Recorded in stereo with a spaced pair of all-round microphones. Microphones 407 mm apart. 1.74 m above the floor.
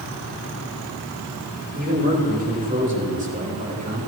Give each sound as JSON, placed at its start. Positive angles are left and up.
{"t": 1.7, "sound": "a man speaking", "side_deg": -20, "distance_m": 8.5}